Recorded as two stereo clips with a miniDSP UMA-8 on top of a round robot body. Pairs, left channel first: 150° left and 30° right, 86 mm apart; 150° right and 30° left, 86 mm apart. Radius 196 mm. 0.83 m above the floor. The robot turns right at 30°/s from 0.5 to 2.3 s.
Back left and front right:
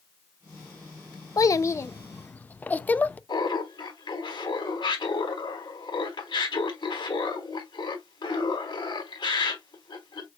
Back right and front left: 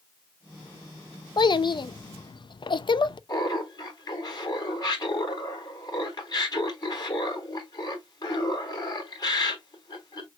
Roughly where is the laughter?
Behind.